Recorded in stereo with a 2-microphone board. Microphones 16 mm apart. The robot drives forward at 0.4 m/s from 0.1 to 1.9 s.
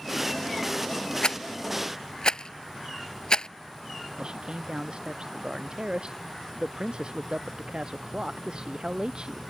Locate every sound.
1.2 s a rattle: 55° left (ahead or behind)
4.2 s a man speaking: 60° right (ahead or behind)